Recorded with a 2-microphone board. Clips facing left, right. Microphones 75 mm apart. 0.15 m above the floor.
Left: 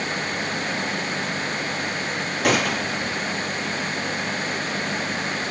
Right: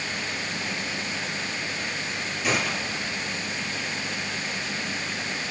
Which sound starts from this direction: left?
A gunshot, at 2.4 s.